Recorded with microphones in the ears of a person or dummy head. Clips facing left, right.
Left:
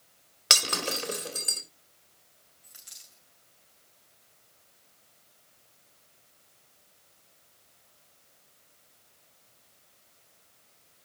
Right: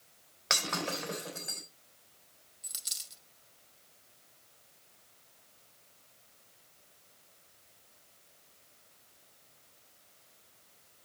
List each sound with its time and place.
0.5 s breaking glass: 50° left (ahead or behind), 3 m
2.6 s a dropped coin: 55° right (ahead or behind), 2.5 m